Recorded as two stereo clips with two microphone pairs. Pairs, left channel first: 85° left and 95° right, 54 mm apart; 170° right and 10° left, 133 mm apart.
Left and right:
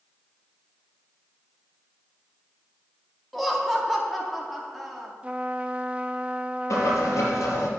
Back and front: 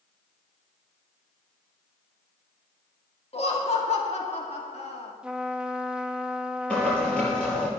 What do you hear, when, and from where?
3.3 s laughter: 170° left, 1.8 m
5.2 s a trumpet: 60° right, 0.8 m
6.7 s boiling: 110° left, 5.5 m